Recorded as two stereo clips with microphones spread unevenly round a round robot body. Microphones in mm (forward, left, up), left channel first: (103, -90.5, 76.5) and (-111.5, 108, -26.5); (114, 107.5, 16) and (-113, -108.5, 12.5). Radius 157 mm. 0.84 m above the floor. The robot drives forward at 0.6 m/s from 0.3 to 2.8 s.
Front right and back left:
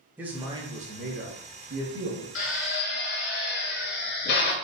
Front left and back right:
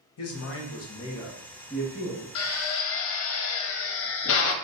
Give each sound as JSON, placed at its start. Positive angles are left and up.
{"t": 0.2, "sound": "a man speaking", "azimuth_deg": 70, "distance_m": 0.8}
{"t": 2.4, "sound": "a drill", "azimuth_deg": 0, "distance_m": 0.7}